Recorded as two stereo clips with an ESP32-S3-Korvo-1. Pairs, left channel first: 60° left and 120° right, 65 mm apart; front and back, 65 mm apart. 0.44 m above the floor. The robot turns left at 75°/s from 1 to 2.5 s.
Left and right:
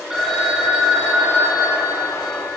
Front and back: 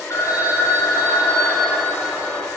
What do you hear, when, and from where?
0.1 s a phone ringing: 40° right, 2.5 m; by 2.6 s 150° right, 2.5 m